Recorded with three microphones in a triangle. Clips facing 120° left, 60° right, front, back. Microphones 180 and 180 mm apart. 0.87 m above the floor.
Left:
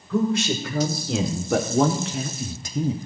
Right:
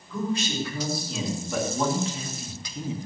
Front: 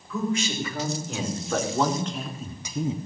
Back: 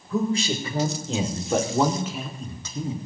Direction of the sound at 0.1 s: 130° left.